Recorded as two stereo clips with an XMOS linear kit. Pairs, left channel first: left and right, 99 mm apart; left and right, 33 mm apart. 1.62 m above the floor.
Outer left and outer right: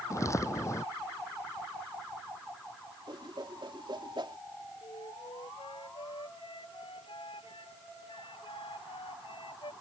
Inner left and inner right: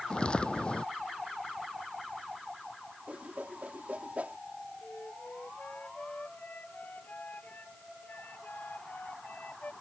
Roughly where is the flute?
Left.